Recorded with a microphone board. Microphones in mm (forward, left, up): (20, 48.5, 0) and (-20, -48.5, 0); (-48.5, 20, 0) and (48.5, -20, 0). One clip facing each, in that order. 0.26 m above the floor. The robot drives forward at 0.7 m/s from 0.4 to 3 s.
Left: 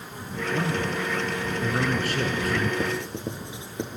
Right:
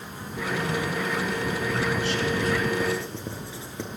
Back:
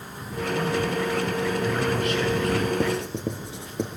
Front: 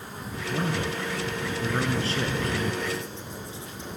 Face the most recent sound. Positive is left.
turn(degrees=140)